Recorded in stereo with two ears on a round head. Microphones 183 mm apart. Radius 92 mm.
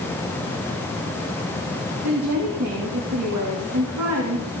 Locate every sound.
2.0 s a woman speaking: 85° right, 3 m